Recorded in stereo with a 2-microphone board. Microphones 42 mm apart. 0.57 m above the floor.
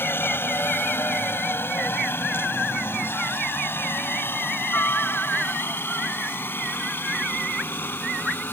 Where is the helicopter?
65° left (ahead or behind); by 8.5 s 60° left (ahead or behind).